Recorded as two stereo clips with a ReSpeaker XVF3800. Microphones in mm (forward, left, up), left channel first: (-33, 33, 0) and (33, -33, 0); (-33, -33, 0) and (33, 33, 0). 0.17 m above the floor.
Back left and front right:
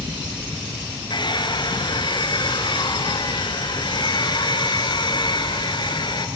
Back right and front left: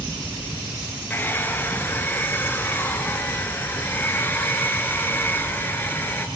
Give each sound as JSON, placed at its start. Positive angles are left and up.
{"t": 1.1, "sound": "a hair dryer", "azimuth_deg": 160, "distance_m": 2.0}